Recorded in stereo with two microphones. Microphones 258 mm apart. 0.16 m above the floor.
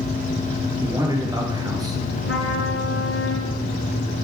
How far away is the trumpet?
About 2.5 m.